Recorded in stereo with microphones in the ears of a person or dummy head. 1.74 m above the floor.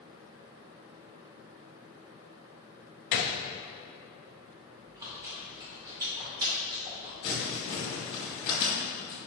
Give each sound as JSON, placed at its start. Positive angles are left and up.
{"t": 3.1, "sound": "a gunshot", "side_deg": 40, "distance_m": 0.7}
{"t": 4.8, "sound": "chewing", "side_deg": -20, "distance_m": 2.5}
{"t": 7.2, "sound": "crumpling", "side_deg": 30, "distance_m": 2.5}